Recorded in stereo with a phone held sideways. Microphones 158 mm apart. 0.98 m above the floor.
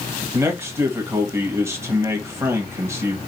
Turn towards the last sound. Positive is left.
turn(degrees=-15)  # may be behind; listen again after turning